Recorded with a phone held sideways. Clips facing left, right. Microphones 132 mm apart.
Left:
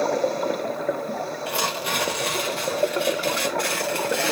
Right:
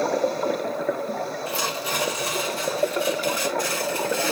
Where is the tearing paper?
70° left (ahead or behind), 1.6 m.